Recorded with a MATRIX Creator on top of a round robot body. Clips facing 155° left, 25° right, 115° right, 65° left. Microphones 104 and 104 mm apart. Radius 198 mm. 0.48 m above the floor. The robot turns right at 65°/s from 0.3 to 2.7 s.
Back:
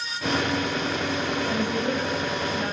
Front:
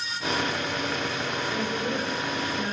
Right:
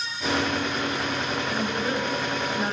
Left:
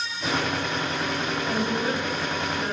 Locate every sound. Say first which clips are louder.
1.5 s a woman speaking: back 2 dB, left 3 dB; 120° left, 4.5 m; by 2.7 s 160° right, 4.5 m